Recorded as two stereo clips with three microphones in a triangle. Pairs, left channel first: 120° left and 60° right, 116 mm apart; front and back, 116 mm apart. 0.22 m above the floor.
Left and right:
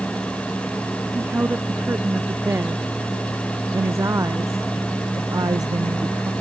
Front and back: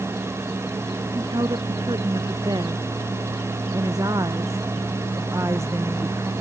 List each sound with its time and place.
1.1 s a woman speaking: 135° right; by 6.3 s 110° right